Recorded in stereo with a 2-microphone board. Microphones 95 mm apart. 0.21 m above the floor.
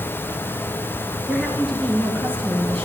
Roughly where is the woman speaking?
Centre.